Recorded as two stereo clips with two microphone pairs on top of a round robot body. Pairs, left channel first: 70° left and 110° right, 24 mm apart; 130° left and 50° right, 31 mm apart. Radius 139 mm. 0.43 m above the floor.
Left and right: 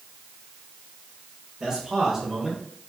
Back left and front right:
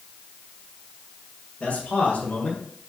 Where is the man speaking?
Straight behind, 2 m; by 2.9 s 150° left, 1.6 m.